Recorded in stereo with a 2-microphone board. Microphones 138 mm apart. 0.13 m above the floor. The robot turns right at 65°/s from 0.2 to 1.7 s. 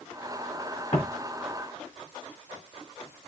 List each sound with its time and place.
0.9 s footsteps: 35° left (ahead or behind), 4 m; by 1.1 s 30° left (ahead or behind), 4 m